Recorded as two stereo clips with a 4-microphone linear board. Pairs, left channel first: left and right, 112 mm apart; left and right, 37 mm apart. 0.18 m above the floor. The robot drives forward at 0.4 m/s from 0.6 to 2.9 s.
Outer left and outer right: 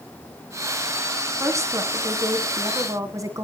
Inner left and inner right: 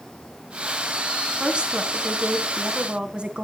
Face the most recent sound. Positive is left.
turn(degrees=-30)  # may be behind; listen again after turning